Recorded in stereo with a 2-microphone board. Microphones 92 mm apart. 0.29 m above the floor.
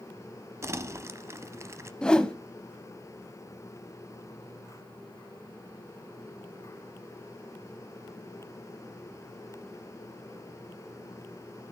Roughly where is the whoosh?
Centre.